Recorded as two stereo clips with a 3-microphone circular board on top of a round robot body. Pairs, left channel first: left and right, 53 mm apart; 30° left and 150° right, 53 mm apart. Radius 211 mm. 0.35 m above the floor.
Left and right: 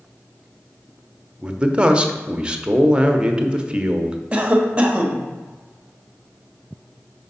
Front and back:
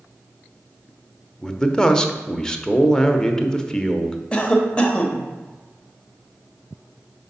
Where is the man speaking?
40° right, 1.0 m.